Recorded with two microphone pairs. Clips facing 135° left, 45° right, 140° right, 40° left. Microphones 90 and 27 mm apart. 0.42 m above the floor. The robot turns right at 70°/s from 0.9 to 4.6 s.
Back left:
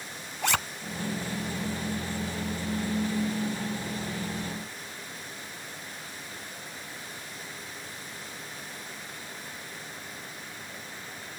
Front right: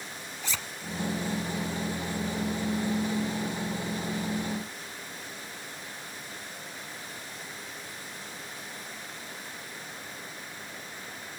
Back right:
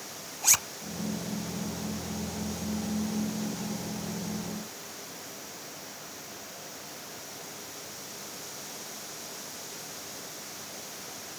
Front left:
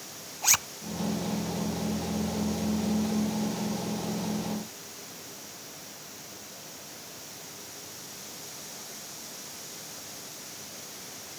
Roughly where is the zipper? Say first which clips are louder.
Back left 10 dB, front left 1 dB; behind left.